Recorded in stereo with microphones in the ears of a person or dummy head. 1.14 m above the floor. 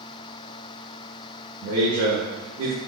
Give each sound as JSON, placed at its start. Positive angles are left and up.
{"t": 1.6, "sound": "a man speaking", "side_deg": -55, "distance_m": 1.0}